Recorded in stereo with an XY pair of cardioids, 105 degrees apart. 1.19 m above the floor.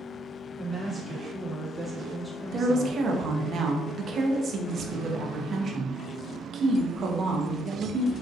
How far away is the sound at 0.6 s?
About 1.0 m.